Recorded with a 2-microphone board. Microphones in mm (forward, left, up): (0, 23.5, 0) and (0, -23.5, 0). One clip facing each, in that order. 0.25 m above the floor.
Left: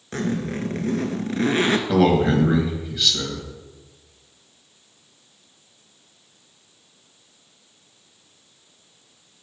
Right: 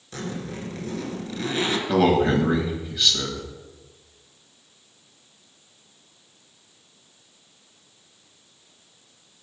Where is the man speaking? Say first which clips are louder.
Right 1 dB; centre (ahead or behind), 1.1 m.